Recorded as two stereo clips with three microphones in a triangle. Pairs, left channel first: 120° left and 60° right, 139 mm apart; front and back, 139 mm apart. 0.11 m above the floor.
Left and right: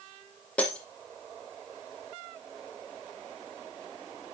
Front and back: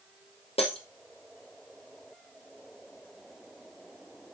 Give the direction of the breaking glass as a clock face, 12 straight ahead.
11 o'clock.